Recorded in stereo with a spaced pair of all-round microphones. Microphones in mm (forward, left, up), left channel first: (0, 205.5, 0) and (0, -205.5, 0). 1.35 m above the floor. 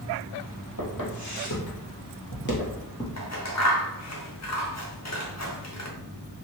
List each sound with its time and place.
0.8 s footsteps: 50° left (ahead or behind), 2.0 m; by 3.1 s 15° left (ahead or behind), 1.3 m
3.2 s scissors: 40° left (ahead or behind), 0.7 m